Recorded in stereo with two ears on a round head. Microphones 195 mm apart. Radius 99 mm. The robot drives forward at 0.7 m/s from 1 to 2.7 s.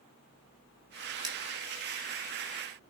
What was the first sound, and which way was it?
Cutlery clinking, 20° right (ahead or behind).